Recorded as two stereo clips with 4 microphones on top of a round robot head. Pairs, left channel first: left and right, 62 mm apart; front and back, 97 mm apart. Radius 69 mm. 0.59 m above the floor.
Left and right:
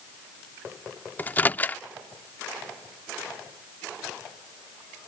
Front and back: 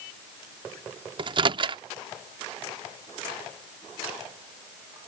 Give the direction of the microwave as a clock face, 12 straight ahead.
7 o'clock.